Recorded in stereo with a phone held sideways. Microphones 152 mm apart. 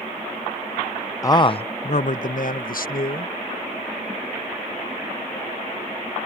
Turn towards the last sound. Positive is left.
turn(degrees=75)  # may be behind; listen again after turning